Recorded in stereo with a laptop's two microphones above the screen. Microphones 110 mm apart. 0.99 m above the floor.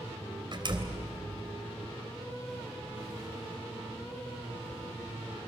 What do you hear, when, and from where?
0.5 s a door slam: 45° right (ahead or behind), 3 m